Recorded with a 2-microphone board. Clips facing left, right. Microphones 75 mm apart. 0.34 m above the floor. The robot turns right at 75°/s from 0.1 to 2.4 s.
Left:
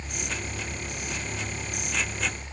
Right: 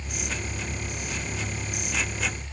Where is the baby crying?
I don't hear a baby crying.